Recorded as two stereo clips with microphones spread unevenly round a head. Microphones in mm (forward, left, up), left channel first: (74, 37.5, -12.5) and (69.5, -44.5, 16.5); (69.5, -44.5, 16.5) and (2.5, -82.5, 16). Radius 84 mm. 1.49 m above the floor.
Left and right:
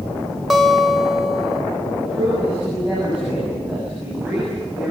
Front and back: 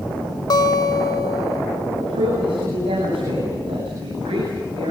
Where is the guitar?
5° right, 2 m.